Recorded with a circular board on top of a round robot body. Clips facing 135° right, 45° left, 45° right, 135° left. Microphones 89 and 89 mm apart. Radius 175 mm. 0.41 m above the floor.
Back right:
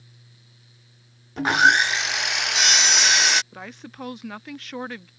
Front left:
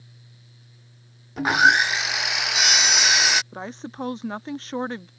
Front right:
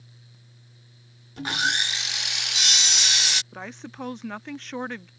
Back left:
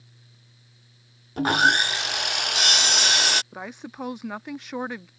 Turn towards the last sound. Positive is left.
turn(degrees=65)